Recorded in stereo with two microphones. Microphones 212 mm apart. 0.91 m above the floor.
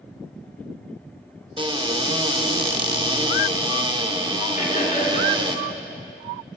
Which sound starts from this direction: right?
A cupboard door, at 1.6 s.